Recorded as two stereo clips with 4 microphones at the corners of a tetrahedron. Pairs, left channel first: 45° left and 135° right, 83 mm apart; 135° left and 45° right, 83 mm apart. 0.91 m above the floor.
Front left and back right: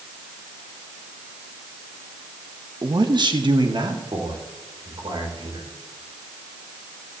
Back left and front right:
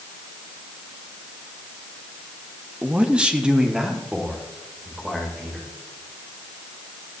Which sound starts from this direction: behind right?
A man speaking, at 2.8 s.